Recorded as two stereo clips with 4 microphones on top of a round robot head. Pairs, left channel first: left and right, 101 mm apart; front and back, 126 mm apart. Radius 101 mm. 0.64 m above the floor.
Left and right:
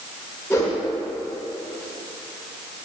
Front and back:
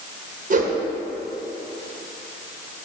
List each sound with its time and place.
0.5 s a whoosh: 170° left, 1.3 m